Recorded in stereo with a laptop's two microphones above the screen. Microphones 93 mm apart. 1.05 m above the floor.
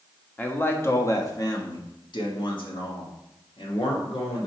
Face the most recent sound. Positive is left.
turn(degrees=85)